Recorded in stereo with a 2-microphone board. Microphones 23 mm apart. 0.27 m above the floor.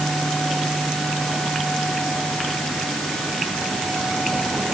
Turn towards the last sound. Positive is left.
No sound to turn to.